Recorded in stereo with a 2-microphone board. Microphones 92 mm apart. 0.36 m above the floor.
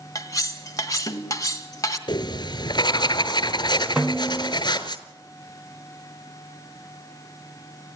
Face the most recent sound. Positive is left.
turn(degrees=-10)  # may be behind; listen again after turning